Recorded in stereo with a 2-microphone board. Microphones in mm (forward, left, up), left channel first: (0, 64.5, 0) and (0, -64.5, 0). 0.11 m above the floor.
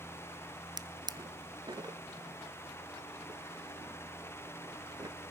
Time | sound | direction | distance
0.8 | a drawer | 35° right (ahead or behind) | 0.6 m